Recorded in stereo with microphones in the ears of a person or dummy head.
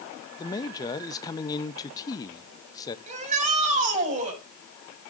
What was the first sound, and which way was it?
A man speaking, 20° left (ahead or behind).